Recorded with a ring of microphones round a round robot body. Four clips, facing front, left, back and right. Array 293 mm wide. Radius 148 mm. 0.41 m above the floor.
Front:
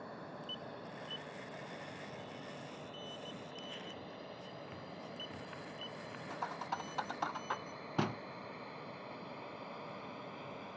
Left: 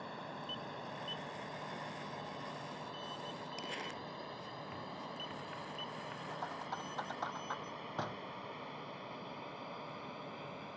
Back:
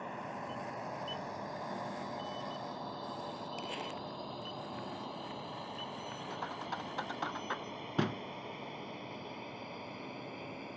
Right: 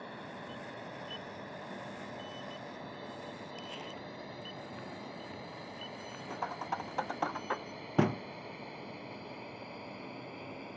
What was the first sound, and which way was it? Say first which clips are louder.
A drone: right 1 dB, back 6 dB; 165° right.